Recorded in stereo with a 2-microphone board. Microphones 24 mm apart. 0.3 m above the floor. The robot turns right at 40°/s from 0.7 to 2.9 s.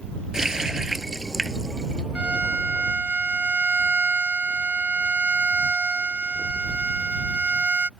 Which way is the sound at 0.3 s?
25° right.